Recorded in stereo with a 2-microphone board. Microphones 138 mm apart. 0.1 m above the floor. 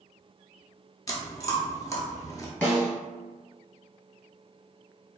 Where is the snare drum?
10° left (ahead or behind), 1.2 m.